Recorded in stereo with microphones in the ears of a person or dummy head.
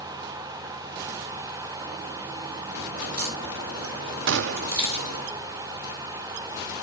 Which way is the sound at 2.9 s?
60° right (ahead or behind).